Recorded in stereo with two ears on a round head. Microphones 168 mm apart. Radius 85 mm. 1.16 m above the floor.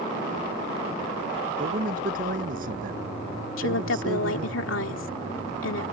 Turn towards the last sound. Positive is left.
turn(degrees=80)